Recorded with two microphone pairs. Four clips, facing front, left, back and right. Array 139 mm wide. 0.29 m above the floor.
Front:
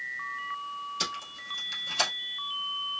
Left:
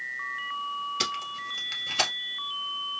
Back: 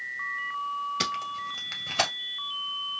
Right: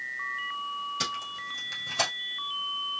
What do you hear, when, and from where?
1.0 s tape being pulled: 165° left, 1.7 m